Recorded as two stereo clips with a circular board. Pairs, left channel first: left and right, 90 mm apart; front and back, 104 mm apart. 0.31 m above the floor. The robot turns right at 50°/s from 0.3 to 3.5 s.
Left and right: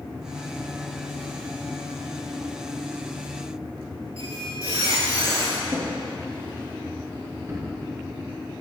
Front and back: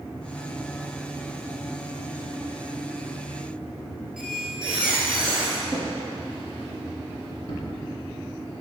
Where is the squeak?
95° right, 1.9 m.